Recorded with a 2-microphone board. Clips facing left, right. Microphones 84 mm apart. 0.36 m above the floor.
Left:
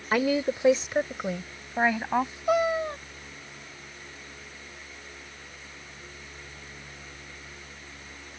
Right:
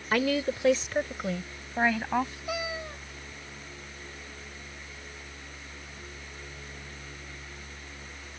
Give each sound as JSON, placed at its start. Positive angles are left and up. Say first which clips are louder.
{"t": 0.1, "sound": "a woman speaking", "louder": "left 2 dB", "side_deg": 15}
{"t": 2.5, "sound": "a cat meowing", "louder": "left 10 dB", "side_deg": 45}